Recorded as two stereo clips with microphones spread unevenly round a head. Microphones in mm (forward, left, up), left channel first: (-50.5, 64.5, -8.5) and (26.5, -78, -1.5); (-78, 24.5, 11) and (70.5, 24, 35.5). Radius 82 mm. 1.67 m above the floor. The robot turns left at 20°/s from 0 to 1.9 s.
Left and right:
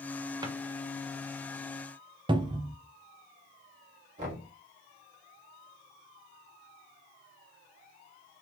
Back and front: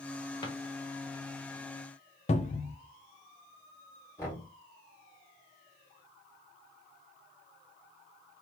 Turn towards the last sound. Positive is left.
turn(degrees=-100)